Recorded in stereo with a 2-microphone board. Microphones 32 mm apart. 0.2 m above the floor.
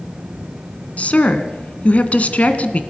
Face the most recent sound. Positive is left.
turn(degrees=50)  # may be behind; listen again after turning